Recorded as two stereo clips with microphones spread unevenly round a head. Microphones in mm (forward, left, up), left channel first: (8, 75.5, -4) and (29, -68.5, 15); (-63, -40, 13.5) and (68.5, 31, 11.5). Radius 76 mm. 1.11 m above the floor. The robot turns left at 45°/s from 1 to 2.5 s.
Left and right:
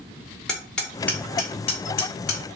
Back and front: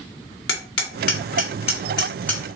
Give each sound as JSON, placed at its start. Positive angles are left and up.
{"t": 0.5, "sound": "hammering", "azimuth_deg": -175, "distance_m": 1.4}